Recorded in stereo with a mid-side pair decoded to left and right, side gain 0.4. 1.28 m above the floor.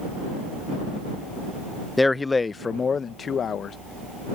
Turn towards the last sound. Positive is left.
turn(degrees=60)